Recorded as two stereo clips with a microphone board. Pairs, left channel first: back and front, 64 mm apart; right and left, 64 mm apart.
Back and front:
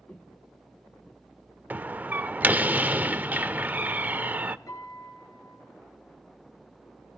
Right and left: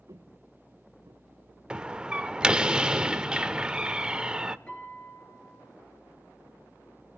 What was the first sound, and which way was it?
Footsteps, 115° left.